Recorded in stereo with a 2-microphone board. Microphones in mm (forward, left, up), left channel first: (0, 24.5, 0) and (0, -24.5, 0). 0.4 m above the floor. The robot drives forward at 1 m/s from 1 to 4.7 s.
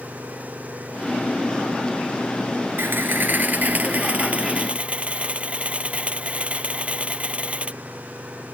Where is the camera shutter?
45° right (ahead or behind); by 7.8 s 25° right (ahead or behind).